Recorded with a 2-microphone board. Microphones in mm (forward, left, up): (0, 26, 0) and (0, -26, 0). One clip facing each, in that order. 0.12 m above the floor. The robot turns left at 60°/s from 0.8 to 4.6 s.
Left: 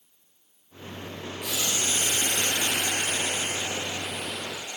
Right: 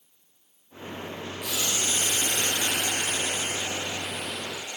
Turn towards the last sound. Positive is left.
turn(degrees=-25)